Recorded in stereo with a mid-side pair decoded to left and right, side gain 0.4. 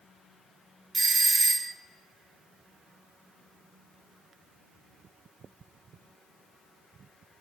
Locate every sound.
0.9 s a doorbell: 30° right, 0.5 m